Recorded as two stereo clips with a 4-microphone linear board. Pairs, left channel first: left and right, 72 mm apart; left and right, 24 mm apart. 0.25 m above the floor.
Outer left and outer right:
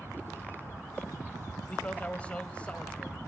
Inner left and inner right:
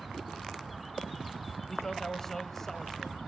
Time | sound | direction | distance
1.7 | a man speaking | 15° left (ahead or behind) | 1.0 m